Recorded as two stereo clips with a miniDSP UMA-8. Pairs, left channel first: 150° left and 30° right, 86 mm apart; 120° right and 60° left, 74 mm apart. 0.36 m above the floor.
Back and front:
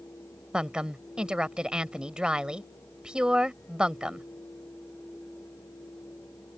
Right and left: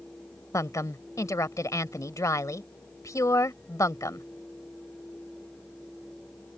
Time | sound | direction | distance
0.5 | a woman speaking | 110° right | ?